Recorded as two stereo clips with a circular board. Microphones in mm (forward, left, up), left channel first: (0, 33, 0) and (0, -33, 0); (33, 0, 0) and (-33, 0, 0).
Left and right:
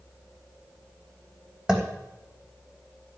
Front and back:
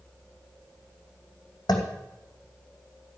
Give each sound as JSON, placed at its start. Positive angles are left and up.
{"t": 1.7, "sound": "tapping", "azimuth_deg": -10, "distance_m": 3.0}